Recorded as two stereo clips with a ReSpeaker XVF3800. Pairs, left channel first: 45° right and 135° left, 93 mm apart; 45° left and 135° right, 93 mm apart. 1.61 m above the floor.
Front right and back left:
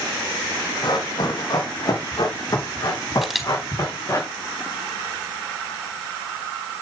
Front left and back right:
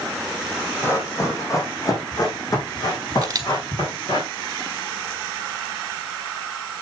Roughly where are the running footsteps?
Ahead.